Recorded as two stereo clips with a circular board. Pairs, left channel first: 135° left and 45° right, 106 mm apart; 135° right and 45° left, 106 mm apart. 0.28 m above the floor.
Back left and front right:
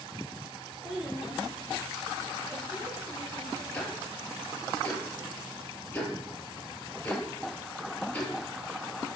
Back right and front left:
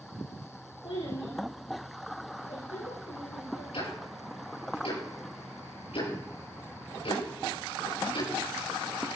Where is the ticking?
150° right, 7 m.